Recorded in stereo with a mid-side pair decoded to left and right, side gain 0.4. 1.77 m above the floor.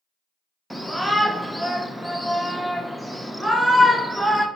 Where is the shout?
5° right, 0.9 m.